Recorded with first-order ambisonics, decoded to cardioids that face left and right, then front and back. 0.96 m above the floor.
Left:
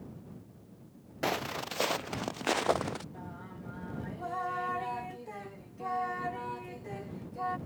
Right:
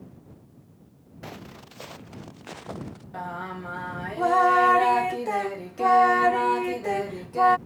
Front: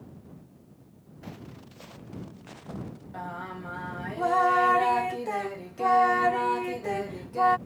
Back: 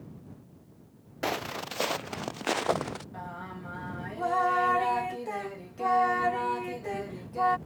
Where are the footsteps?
145° left.